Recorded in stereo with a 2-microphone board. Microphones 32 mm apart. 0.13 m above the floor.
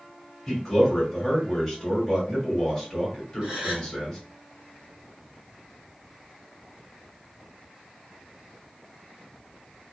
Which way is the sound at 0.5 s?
15° left (ahead or behind).